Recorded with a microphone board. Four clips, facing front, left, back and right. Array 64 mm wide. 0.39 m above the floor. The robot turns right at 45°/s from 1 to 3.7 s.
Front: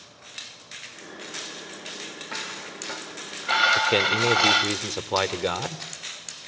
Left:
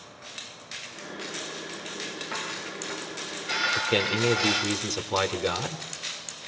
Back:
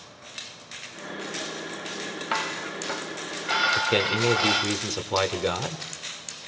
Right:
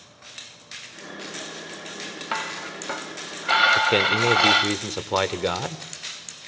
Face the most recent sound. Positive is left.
turn(degrees=-65)